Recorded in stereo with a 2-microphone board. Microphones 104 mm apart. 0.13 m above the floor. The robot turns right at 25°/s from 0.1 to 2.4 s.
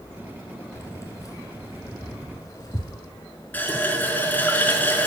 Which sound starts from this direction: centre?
A running tap, at 3.5 s.